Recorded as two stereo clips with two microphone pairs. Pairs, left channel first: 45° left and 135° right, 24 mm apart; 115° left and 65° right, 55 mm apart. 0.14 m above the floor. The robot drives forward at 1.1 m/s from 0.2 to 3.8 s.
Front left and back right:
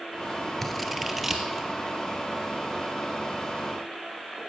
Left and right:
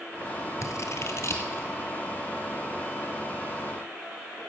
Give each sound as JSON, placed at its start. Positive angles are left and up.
{"t": 0.6, "sound": "scissors", "azimuth_deg": 125, "distance_m": 0.9}